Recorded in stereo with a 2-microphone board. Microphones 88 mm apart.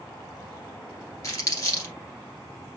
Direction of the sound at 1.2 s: 40° left (ahead or behind).